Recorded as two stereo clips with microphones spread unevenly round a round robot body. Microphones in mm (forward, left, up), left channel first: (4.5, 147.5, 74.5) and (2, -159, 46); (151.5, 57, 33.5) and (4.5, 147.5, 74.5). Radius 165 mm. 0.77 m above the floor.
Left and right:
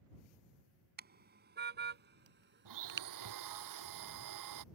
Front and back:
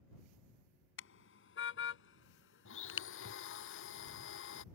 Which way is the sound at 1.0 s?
25° right.